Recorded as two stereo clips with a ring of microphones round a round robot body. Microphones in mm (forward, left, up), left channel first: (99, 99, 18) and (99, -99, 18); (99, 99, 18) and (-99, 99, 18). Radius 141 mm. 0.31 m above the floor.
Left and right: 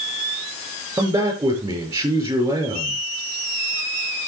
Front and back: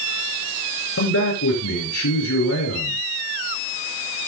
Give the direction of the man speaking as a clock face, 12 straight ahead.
12 o'clock.